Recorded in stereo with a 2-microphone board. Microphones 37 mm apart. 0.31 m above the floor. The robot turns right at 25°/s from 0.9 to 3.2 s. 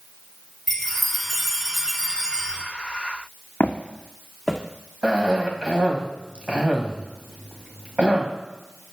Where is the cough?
30° right (ahead or behind), 1.5 m.